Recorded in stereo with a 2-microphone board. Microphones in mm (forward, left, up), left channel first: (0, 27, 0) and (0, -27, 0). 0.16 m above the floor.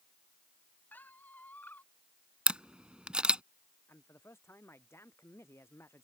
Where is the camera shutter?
20° right (ahead or behind).